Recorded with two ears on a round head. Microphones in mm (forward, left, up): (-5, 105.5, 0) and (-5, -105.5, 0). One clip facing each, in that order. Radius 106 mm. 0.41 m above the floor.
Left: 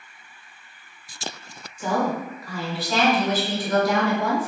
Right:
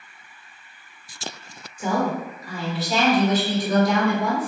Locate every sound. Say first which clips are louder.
1.8 s a woman speaking: right 1 dB; 15° right (ahead or behind), 1.5 m; by 4.5 s 20° right (ahead or behind), 1.5 m